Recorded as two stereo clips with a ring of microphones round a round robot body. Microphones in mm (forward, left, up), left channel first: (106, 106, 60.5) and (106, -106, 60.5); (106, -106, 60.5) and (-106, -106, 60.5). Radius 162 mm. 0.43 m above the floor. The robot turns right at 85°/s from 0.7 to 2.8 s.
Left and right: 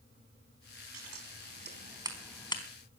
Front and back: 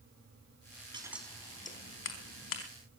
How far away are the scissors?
About 4.5 m.